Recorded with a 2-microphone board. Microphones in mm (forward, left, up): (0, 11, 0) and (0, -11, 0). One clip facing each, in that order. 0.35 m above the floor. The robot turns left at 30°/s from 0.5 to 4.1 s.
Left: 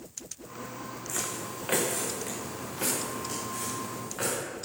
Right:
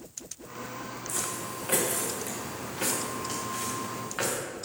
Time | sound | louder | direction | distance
1.1 | footsteps | even | 40° left (ahead or behind) | 1.7 m